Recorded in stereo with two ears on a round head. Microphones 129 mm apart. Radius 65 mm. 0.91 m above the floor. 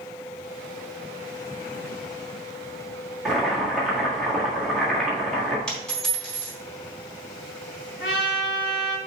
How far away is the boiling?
About 1.6 m.